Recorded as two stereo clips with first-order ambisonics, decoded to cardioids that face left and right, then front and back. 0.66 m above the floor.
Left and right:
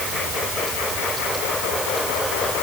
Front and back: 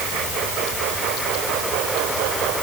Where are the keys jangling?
No keys jangling in this recording.